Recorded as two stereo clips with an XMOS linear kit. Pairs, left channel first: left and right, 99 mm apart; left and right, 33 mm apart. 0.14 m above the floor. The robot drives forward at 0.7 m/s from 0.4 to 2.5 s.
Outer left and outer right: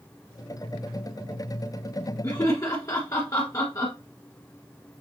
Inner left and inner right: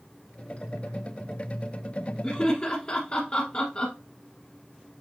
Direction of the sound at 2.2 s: 35° left (ahead or behind).